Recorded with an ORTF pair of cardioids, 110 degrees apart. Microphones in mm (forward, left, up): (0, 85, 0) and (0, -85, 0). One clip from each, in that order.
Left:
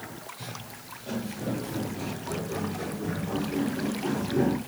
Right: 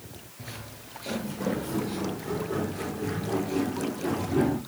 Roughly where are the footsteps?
Ahead right.